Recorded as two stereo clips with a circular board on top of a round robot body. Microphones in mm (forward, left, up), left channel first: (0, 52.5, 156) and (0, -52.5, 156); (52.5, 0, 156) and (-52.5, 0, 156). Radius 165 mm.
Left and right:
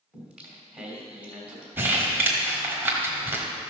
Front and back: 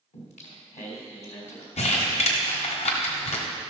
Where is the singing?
10° right, 2.5 m.